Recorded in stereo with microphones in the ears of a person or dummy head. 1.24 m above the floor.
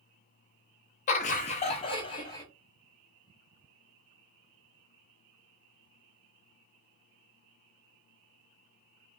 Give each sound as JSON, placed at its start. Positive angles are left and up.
{"t": 1.1, "sound": "laughter", "side_deg": 35, "distance_m": 0.5}